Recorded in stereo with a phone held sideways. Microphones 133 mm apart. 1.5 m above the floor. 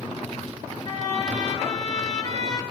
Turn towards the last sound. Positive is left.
turn(degrees=35)  # may be behind; listen again after turning